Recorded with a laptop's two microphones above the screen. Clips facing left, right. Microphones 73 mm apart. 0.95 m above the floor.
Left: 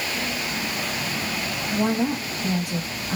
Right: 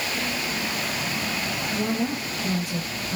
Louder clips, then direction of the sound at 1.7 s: Left 4 dB; 65° left (ahead or behind).